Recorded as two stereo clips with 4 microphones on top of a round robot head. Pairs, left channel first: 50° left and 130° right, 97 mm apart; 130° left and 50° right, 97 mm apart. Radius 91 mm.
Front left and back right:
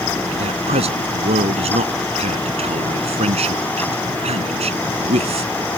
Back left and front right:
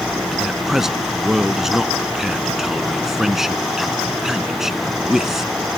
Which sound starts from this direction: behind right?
A man speaking, at 0.3 s.